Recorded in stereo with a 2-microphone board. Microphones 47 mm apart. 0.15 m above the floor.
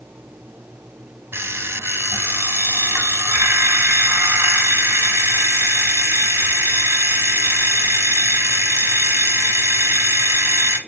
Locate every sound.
1.3 s an alarm clock: 55° right (ahead or behind), 1.2 m